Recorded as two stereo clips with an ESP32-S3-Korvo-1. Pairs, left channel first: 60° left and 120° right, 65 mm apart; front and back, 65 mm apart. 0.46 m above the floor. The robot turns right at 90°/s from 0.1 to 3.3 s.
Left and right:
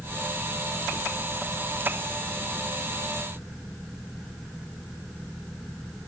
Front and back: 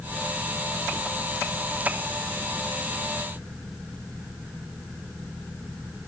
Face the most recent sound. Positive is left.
No sound to turn to.